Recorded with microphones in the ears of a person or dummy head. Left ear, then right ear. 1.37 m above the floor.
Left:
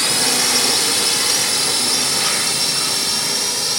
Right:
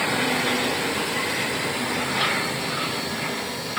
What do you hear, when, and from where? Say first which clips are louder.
0.0 s a drone: left 5 dB; 55° left (ahead or behind); by 3.8 s 45° left (ahead or behind)